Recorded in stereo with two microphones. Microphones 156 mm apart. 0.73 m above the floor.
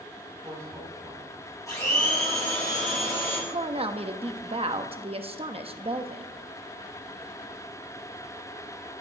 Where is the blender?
20° left (ahead or behind), 6.5 m.